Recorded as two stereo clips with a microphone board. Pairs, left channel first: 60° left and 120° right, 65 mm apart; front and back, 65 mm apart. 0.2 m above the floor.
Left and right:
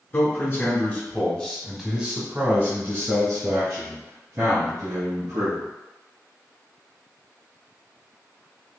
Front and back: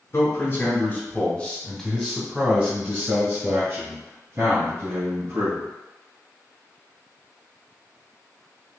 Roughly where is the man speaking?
Ahead left.